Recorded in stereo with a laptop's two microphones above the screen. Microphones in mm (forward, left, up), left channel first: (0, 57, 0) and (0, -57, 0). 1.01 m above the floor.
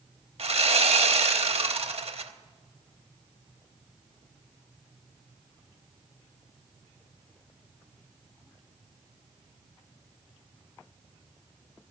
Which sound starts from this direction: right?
Sawing, at 0.4 s.